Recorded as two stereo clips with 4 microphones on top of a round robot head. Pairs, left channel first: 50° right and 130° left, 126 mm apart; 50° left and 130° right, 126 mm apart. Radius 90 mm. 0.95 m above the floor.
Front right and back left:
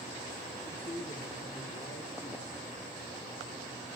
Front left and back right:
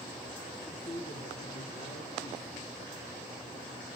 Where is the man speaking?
Straight ahead, 2.5 m.